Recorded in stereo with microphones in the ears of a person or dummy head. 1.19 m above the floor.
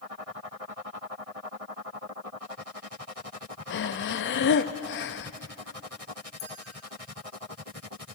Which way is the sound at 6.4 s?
25° left (ahead or behind).